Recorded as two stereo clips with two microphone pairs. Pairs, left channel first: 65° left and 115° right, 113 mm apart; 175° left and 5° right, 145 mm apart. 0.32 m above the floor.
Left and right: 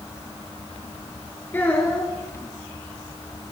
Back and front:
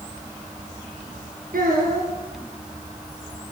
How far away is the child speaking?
About 4 m.